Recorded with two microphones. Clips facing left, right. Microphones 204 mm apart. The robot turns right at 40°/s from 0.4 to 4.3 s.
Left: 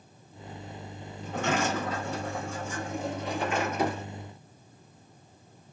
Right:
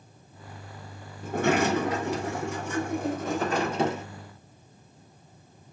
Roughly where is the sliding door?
Behind right.